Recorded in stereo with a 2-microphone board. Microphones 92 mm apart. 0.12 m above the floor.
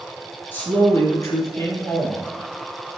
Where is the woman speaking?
20° left (ahead or behind), 1.1 m; by 2.2 s 45° left (ahead or behind), 1.5 m.